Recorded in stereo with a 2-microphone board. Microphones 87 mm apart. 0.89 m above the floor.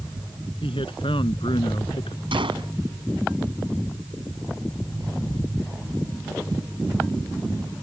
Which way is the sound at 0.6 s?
85° left.